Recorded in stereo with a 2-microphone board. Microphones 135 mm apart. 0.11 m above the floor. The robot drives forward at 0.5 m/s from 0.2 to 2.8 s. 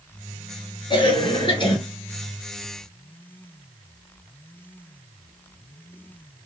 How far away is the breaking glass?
No breaking glass in this recording.